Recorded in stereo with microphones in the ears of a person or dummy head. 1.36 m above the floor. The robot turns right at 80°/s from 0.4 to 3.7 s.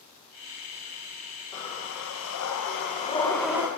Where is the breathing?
30° left, 1.1 m; by 3.7 s 160° right, 1.1 m.